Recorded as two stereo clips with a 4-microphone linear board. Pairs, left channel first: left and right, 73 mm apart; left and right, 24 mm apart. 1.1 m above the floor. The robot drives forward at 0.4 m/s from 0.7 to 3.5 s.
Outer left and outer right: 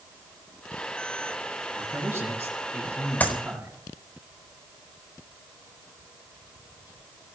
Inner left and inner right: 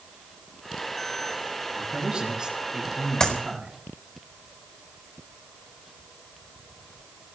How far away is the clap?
About 4 m.